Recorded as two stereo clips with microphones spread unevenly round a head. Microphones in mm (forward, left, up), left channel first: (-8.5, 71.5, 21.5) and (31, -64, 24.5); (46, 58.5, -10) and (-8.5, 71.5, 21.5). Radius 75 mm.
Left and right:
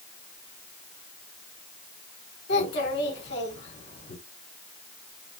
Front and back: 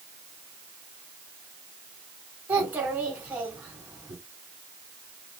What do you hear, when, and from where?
2.5 s a child speaking: 110° left, 6 m